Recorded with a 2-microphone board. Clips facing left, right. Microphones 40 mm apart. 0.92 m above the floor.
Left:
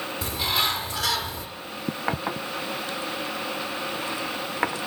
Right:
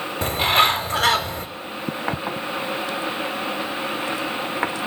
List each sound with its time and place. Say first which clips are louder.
0.2 s a bird: right 9 dB; 50° right (ahead or behind), 0.7 m